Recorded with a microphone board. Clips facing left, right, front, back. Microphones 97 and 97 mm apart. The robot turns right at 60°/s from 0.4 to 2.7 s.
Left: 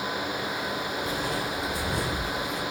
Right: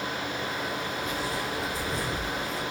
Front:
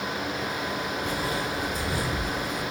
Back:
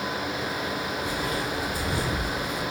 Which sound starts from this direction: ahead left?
Footsteps, at 1.0 s.